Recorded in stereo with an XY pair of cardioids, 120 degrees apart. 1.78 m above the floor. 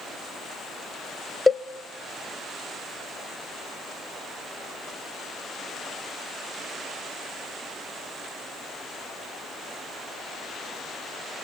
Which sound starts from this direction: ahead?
A cowbell, at 1.5 s.